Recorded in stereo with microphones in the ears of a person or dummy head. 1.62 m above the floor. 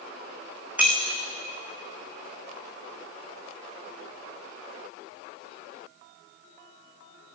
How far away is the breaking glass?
About 4.5 m.